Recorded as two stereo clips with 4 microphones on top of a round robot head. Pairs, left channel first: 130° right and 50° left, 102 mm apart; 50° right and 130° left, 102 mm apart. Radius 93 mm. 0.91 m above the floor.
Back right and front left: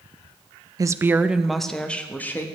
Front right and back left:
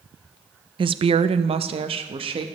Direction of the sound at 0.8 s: 100° left.